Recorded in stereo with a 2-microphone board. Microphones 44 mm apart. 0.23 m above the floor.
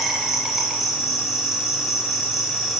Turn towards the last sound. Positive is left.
turn(degrees=-5)  # may be behind; listen again after turning